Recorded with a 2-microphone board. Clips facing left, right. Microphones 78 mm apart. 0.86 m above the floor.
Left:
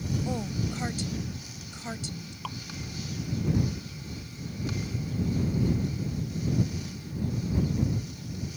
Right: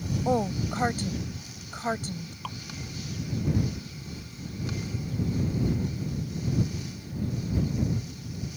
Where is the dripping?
Centre (ahead or behind).